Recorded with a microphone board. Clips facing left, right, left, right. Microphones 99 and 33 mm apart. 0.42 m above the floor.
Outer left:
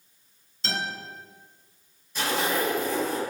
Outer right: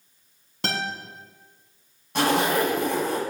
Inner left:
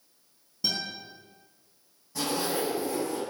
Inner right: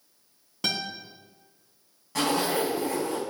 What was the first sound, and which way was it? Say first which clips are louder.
A guitar: outer right 3 dB, inner right 2 dB; 75° right (ahead or behind).